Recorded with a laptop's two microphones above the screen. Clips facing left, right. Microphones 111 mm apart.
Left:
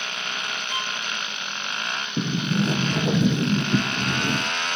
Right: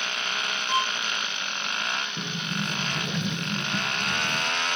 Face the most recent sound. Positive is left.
turn(degrees=75)  # may be behind; listen again after turning